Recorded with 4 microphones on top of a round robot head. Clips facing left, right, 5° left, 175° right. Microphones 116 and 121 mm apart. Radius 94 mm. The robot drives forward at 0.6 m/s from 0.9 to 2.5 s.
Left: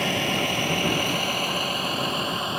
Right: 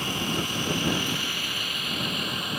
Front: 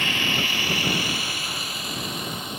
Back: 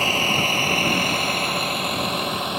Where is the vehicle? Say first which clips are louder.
Left 4 dB, back 5 dB; 135° left; by 2.6 s 160° left.